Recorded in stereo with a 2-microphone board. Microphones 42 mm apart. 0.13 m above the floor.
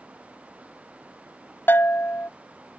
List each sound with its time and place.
1.7 s a bell: 60° left (ahead or behind)